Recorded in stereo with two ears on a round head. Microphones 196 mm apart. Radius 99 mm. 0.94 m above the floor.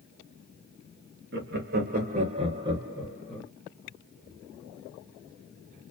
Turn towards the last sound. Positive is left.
turn(degrees=5)  # may be behind; listen again after turning